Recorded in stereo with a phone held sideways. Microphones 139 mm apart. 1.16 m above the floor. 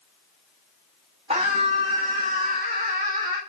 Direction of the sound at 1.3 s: 65° right (ahead or behind).